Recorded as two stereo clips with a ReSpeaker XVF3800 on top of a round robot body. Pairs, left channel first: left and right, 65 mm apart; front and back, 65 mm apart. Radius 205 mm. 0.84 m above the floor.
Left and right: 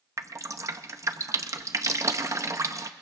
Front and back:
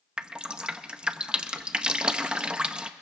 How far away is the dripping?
About 0.9 m.